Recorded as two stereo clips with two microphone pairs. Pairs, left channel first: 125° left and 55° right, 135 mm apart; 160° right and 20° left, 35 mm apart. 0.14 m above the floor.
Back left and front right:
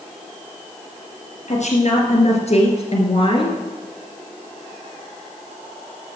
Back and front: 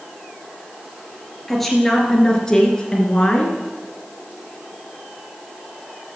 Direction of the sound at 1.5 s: 115° left.